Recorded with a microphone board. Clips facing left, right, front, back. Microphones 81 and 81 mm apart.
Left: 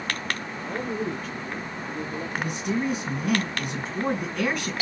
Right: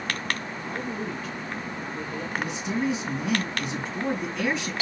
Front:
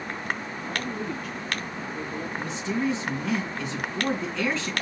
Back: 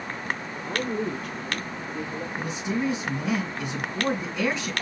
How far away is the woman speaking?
About 4.5 m.